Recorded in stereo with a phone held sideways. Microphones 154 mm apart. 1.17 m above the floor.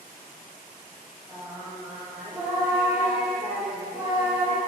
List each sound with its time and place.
1.3 s singing: 15° right (ahead or behind), 1.6 m